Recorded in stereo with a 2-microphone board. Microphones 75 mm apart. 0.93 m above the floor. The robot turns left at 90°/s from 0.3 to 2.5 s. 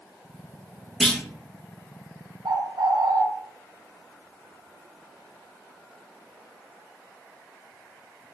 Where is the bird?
70° right (ahead or behind), 0.6 m; by 3.2 s 75° right (ahead or behind), 0.6 m.